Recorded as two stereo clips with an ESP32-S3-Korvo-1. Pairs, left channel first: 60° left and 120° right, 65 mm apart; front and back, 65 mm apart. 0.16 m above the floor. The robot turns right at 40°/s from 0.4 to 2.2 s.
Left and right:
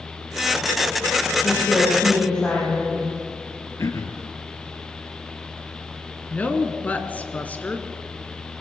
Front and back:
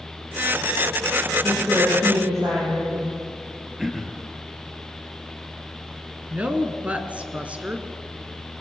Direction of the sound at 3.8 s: 95° left.